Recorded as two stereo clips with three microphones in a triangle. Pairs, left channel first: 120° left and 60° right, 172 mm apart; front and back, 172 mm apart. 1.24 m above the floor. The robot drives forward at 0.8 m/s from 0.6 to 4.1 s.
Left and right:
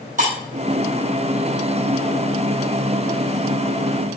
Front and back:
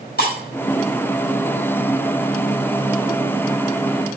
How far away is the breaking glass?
About 4 m.